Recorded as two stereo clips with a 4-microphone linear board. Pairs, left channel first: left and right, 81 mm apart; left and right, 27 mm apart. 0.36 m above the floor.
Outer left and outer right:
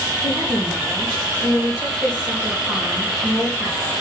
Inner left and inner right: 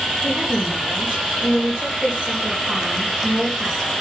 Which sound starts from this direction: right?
A woman speaking, at 0.2 s.